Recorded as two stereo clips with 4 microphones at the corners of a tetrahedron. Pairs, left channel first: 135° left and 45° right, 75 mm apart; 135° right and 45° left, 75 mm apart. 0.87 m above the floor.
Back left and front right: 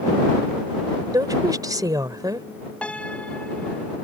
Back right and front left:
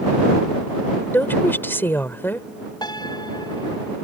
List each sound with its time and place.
1.1 s a woman speaking: 75° right
2.8 s a piano: 150° right